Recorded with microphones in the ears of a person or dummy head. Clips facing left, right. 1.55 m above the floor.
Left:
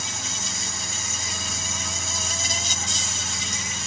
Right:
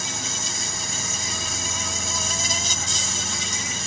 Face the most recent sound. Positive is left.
turn(degrees=-80)